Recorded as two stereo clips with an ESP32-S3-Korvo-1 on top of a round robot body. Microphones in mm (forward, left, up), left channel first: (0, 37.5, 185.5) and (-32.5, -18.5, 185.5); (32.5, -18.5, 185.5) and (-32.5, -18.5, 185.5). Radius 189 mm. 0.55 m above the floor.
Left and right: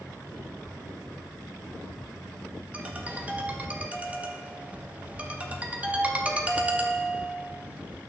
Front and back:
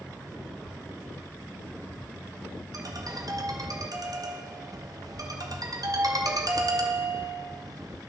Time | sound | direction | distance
2.7 | a ringtone | 170° left | 1.1 m